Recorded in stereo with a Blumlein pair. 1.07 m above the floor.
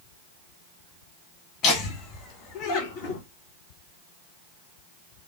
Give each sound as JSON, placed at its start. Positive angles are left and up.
{"t": 1.6, "sound": "laughter", "azimuth_deg": 35, "distance_m": 2.5}